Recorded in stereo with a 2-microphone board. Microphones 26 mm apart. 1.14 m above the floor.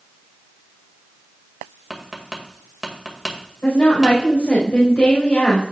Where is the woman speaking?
60° left (ahead or behind), 4.5 m.